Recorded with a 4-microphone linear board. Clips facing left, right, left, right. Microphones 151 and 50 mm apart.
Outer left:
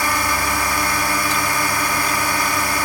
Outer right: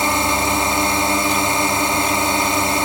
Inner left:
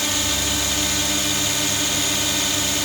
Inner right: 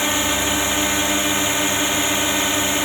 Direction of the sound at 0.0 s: 25° right (ahead or behind).